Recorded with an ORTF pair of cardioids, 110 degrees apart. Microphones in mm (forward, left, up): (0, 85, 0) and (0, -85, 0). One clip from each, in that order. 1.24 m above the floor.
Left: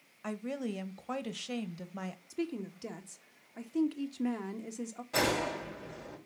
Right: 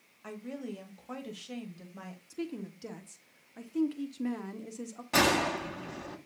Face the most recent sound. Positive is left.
turn(degrees=-50)